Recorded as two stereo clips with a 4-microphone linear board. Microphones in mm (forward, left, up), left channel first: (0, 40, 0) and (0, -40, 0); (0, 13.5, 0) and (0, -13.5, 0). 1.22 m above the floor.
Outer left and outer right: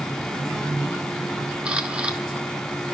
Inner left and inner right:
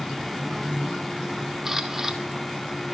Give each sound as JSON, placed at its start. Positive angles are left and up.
{"t": 1.6, "sound": "a camera shutter", "side_deg": -15, "distance_m": 1.8}